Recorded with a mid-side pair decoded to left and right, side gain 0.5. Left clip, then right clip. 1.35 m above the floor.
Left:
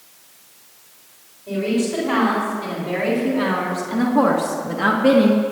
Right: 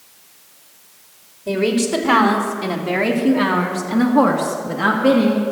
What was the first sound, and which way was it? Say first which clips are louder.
A woman speaking: right 4 dB; 65° right.